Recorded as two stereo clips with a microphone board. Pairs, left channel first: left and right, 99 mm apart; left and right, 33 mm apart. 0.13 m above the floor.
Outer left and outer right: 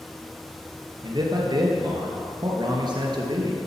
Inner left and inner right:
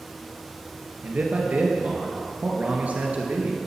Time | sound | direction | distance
1.0 | a man speaking | 50° right (ahead or behind) | 2.5 m